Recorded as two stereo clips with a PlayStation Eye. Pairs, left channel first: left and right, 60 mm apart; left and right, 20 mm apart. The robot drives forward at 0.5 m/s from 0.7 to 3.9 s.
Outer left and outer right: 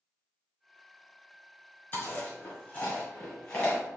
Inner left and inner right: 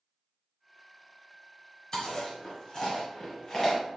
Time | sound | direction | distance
1.9 | chewing | 30° left (ahead or behind) | 1.3 m